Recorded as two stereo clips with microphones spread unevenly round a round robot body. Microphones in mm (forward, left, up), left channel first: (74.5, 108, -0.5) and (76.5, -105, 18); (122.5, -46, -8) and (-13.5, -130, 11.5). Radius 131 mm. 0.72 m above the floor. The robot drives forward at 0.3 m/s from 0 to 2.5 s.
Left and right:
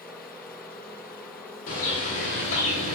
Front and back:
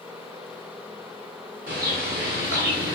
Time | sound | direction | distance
1.7 | a bird | 150° left | 1.6 m